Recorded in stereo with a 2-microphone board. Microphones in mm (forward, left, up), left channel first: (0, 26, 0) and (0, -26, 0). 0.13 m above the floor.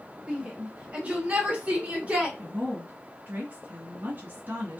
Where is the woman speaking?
35° right (ahead or behind), 1.9 m.